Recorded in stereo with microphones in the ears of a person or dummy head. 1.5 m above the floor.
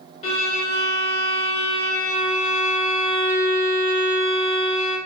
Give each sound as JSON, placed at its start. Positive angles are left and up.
{"t": 0.2, "sound": "a violin", "side_deg": 35, "distance_m": 1.2}